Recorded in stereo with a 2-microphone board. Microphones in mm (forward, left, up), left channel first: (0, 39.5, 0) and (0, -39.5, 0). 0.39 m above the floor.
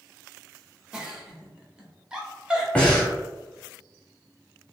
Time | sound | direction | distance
0.9 | a giggle | 10° right (ahead or behind) | 0.5 m
2.8 | breathing | 15° left (ahead or behind) | 1.2 m